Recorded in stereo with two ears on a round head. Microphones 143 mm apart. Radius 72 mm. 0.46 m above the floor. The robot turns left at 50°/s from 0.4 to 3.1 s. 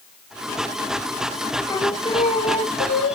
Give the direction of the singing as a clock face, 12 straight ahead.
7 o'clock.